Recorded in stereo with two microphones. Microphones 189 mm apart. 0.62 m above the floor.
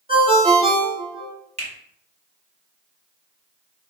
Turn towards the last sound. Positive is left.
turn(degrees=-35)  # may be behind; listen again after turning